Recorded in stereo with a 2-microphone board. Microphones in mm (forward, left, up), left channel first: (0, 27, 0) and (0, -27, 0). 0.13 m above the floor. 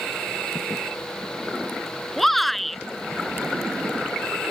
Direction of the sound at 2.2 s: Centre (ahead or behind).